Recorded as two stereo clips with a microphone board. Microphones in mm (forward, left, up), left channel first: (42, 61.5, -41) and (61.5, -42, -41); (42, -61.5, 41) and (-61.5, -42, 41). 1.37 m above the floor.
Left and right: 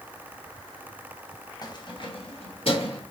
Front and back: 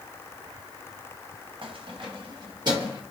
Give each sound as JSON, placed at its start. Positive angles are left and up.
{"t": 1.6, "sound": "keys jangling", "azimuth_deg": 150, "distance_m": 0.6}